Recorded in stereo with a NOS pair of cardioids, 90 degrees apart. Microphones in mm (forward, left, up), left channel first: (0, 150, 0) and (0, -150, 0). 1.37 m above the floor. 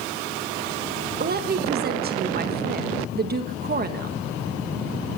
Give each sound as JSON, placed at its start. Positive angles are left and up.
{"t": 1.2, "sound": "a woman speaking", "azimuth_deg": -30, "distance_m": 1.4}